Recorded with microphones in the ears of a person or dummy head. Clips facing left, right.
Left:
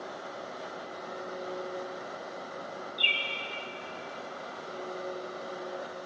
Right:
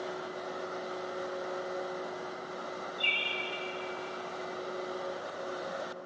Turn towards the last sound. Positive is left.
turn(degrees=60)  # may be behind; listen again after turning